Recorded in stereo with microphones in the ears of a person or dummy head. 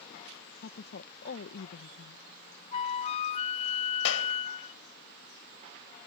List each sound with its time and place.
0.6 s a woman speaking: 55° left (ahead or behind)
2.7 s a flute: 30° left (ahead or behind)
4.0 s a clap: 65° left (ahead or behind)